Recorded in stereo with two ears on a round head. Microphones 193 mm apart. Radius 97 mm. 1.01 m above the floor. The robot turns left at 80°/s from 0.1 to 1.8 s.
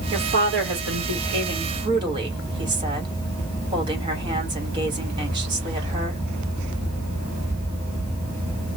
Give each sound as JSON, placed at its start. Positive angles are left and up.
{"t": 0.1, "sound": "a woman speaking", "azimuth_deg": -20, "distance_m": 1.9}